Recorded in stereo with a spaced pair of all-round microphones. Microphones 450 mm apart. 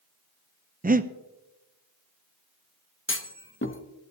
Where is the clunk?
25° left (ahead or behind), 0.8 m.